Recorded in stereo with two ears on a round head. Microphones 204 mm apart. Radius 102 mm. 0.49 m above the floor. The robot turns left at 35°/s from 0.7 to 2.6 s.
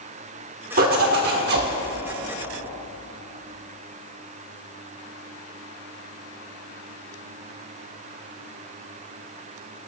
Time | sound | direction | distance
0.8 | a zipper | 60° right | 1.1 m